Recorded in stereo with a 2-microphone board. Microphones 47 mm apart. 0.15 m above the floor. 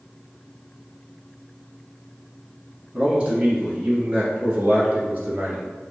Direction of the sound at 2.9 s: 25° right (ahead or behind).